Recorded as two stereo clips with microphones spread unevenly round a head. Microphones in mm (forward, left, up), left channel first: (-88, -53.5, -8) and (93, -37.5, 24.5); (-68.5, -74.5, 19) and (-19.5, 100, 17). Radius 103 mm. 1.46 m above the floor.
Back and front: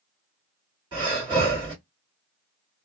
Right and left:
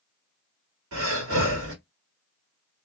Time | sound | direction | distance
0.9 | breathing | 70° left | 1.7 m